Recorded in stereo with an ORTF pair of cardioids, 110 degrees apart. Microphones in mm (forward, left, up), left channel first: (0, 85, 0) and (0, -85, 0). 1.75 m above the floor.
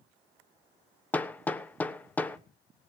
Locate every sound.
1.1 s hammering: 10° left, 1.1 m